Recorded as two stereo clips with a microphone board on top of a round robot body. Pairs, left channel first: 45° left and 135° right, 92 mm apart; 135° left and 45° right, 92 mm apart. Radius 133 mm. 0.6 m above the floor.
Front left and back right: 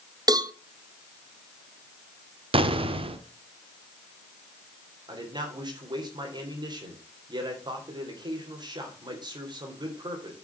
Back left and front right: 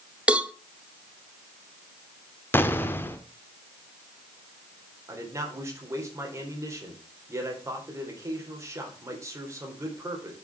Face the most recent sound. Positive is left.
turn(degrees=-100)